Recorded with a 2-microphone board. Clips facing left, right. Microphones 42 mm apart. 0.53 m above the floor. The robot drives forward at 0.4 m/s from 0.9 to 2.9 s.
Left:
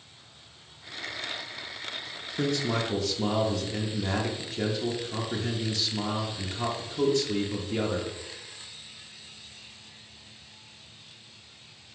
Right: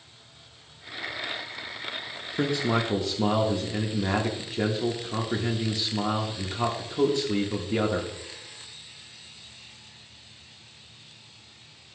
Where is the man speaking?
20° right (ahead or behind), 0.6 m.